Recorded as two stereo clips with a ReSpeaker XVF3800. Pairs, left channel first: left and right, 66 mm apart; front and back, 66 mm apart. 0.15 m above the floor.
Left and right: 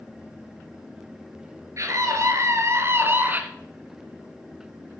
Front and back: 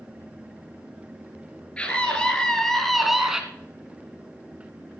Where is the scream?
70° right, 2.5 m; by 3.4 s 110° right, 1.4 m.